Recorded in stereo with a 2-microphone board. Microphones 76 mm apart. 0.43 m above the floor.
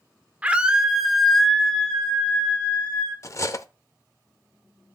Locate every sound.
0.4 s a scream: 20° right (ahead or behind), 0.9 m; by 3.1 s 15° left (ahead or behind), 3 m
3.2 s cutlery clinking: 40° left (ahead or behind), 0.6 m